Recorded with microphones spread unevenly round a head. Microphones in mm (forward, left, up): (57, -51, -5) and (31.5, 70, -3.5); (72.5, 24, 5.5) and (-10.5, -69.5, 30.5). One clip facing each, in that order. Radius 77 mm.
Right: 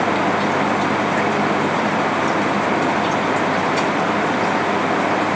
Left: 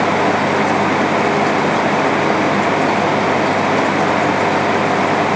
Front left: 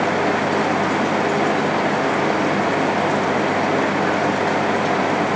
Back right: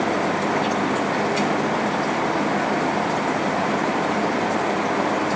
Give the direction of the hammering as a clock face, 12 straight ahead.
I don't hear hammering.